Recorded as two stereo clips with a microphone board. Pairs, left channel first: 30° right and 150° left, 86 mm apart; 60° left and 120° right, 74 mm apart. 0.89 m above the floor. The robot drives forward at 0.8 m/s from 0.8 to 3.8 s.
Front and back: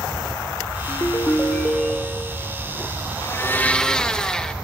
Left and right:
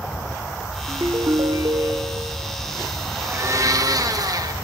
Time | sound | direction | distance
0.9 | a ringtone | 70° right | 1.0 m
3.2 | a blender | 65° right | 0.8 m